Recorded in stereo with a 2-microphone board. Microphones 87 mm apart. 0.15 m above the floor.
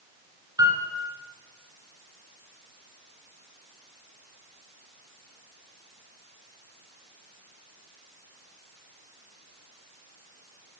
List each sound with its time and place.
0.6 s a piano: 45° right (ahead or behind), 1.8 m